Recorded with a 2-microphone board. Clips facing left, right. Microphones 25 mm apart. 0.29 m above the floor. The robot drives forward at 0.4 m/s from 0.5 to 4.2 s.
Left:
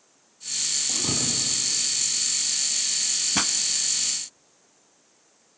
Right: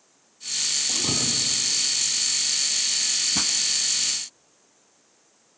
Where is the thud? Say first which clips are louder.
Right 2 dB; 10° right (ahead or behind), 2.5 m.